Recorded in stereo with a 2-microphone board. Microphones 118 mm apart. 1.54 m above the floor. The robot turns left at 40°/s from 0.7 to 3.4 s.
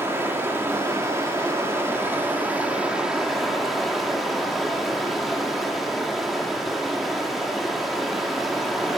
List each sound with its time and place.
0.0 s running water: 20° right (ahead or behind), 1.1 m; by 9.0 s centre (ahead or behind), 1.1 m